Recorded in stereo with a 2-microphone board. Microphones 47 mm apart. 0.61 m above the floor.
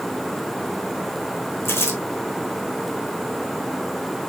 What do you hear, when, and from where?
1.6 s crumpling: 60° left (ahead or behind), 6.5 m